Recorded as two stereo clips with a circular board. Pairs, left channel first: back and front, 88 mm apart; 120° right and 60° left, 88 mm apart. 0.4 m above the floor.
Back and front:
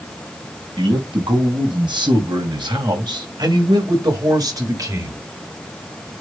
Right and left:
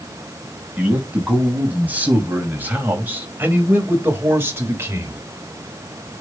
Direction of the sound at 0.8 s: 10° right.